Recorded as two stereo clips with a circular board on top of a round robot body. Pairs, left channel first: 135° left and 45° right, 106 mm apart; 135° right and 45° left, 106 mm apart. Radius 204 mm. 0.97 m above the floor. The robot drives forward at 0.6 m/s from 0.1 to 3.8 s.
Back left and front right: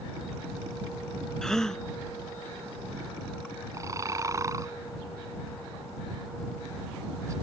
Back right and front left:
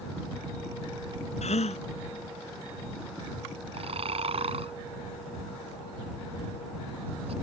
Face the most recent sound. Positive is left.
turn(degrees=15)